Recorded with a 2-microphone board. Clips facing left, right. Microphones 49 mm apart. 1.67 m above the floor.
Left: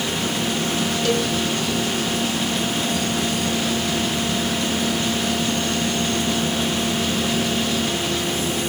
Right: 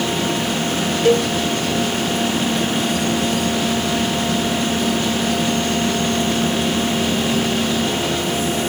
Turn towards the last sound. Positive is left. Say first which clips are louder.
# right 8 dB
turn(degrees=-35)  # may be behind; listen again after turning